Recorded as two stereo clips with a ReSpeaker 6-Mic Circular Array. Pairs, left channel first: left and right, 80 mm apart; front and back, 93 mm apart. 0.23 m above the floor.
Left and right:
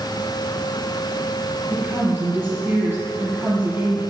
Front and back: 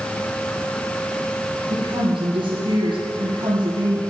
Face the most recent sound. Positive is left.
turn(degrees=-150)